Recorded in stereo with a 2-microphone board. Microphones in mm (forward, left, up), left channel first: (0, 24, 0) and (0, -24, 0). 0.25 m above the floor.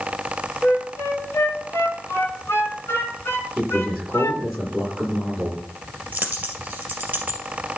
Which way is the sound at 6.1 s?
30° right (ahead or behind).